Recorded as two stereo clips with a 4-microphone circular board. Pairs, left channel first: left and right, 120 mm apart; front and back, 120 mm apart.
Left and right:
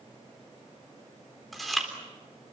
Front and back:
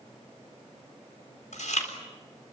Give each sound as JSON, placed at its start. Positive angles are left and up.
{"t": 1.5, "sound": "chewing", "azimuth_deg": 0, "distance_m": 4.0}